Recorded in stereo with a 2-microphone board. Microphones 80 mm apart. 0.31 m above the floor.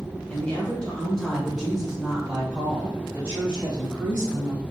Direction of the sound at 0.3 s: 15° left (ahead or behind).